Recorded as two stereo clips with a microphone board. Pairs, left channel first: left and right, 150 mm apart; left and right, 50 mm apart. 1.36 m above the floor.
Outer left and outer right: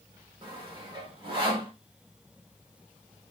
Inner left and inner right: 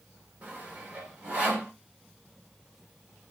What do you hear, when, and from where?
0.4 s sawing: 30° right (ahead or behind), 5 m